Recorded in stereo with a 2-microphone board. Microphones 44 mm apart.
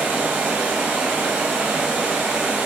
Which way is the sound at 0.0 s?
35° right (ahead or behind).